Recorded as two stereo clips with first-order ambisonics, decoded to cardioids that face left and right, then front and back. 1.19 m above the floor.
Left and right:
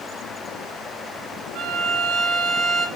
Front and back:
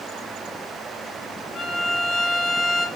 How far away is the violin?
About 0.5 m.